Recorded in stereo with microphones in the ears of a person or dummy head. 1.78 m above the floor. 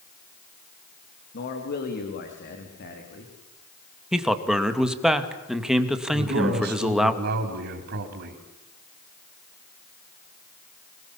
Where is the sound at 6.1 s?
60° right (ahead or behind), 5 m.